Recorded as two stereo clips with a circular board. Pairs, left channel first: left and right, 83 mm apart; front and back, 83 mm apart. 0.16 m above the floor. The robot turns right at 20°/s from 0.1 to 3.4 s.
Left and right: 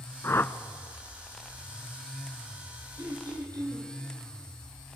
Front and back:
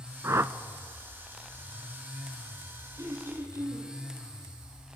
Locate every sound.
0.2 s a whoosh: 135° left, 0.5 m; by 0.6 s 145° left, 0.5 m
3.0 s throat clearing: 130° right, 4.5 m; by 3.9 s 125° right, 4.5 m